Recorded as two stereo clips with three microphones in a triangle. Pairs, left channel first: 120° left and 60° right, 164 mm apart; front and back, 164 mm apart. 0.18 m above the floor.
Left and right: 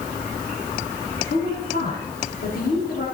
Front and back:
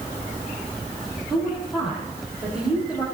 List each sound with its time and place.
1.3 s a woman speaking: 95° left, 5.5 m